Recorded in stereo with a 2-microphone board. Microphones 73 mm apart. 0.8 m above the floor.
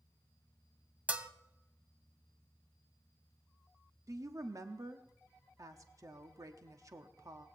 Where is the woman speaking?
50° right (ahead or behind), 1.1 m.